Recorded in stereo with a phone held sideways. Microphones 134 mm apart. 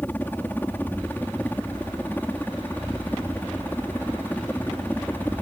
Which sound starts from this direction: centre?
A helicopter, at 0.0 s.